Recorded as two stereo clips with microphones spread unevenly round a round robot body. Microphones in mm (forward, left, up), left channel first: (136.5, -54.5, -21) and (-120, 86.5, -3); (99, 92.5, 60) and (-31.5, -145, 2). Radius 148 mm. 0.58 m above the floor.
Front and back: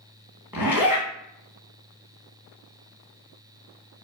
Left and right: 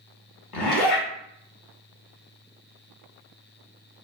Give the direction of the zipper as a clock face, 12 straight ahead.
10 o'clock.